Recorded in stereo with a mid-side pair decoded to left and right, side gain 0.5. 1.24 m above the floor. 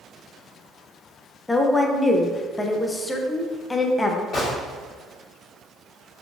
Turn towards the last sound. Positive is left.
turn(degrees=55)